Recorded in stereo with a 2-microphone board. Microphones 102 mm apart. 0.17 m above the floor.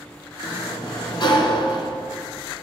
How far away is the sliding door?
About 1.6 m.